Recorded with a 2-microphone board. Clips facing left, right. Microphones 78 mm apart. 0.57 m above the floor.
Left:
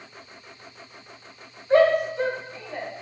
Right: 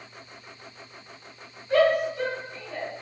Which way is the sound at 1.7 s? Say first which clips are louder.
Left 3 dB; 30° left (ahead or behind).